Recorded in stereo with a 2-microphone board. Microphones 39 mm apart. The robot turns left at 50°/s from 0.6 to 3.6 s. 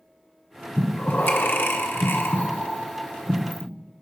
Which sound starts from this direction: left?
Breathing, at 0.8 s.